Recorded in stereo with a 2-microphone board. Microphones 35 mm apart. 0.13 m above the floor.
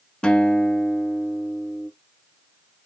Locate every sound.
0.2 s a guitar: 25° left (ahead or behind), 0.6 m